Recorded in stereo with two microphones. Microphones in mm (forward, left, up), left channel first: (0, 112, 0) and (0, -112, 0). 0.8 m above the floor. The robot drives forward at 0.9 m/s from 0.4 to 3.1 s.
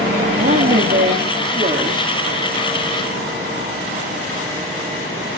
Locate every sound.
0.4 s a woman speaking: 60° right (ahead or behind), 1.6 m; by 2.2 s 35° right (ahead or behind), 2.5 m